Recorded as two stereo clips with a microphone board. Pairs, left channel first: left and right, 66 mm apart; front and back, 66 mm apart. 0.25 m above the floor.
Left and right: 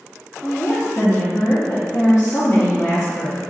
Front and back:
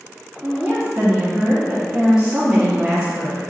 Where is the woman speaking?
95° left, 2.5 m.